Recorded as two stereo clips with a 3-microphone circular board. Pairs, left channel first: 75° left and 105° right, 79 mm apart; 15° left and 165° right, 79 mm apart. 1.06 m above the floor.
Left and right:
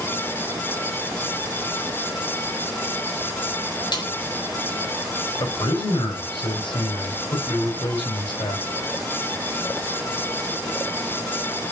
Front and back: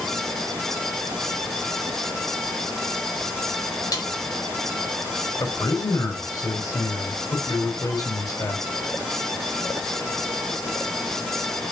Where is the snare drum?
50° left, 4 m.